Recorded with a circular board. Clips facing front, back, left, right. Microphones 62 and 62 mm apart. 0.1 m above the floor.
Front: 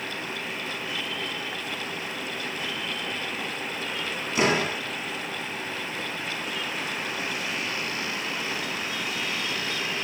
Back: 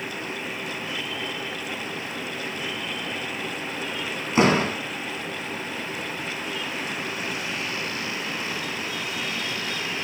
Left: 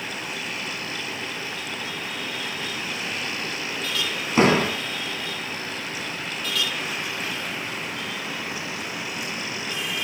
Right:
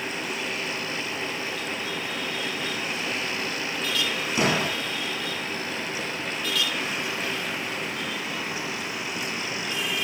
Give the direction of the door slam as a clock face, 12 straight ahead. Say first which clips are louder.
Back 4 dB, left 7 dB; 8 o'clock.